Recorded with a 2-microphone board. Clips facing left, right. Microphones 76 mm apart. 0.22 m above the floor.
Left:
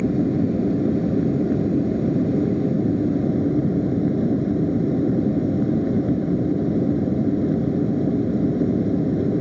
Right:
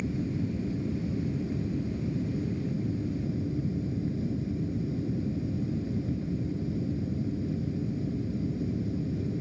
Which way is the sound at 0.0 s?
55° left (ahead or behind).